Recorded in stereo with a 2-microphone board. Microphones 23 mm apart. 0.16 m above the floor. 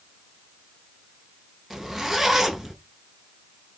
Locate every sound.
1.7 s a zipper: 15° right (ahead or behind), 1.2 m